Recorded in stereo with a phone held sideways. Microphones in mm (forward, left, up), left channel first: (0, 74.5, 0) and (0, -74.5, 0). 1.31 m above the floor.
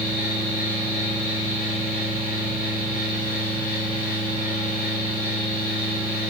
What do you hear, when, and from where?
0.0 s a fan: 70° left (ahead or behind), 3 m